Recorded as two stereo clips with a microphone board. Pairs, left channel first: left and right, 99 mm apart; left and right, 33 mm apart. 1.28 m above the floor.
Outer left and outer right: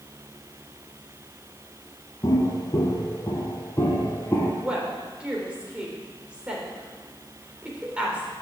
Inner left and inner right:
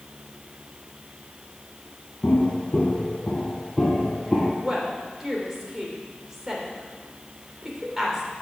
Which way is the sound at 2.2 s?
35° left (ahead or behind).